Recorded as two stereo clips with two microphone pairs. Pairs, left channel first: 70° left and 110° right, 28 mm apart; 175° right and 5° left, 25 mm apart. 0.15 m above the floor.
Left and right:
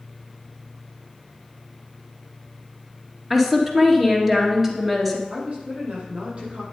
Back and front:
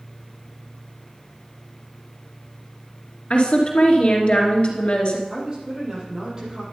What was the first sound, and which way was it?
A woman speaking, 170° left.